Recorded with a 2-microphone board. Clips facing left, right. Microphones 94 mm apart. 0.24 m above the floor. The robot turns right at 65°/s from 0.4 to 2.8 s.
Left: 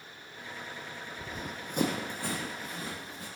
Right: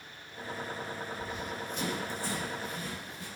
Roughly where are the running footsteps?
Left.